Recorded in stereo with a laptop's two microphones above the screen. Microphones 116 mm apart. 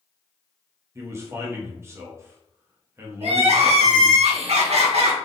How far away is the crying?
About 1.1 m.